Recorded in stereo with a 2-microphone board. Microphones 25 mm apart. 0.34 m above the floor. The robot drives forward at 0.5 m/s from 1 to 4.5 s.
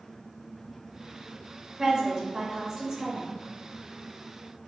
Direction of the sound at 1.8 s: 25° right (ahead or behind).